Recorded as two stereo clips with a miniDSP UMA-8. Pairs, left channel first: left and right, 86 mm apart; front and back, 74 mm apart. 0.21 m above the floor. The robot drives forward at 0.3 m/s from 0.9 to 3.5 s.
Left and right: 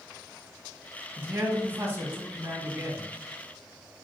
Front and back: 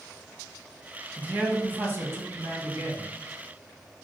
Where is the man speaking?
125° right, 1.1 m; by 3.1 s 150° right, 1.4 m.